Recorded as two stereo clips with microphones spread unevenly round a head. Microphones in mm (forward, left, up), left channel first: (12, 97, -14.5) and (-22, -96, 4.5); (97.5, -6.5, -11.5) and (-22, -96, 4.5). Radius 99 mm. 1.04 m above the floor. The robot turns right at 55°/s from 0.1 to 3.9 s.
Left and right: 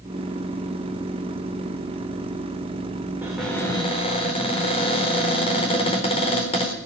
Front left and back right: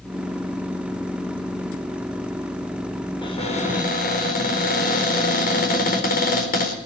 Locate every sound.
3.2 s a cupboard door: 20° right, 4 m; by 6.8 s 20° left, 4 m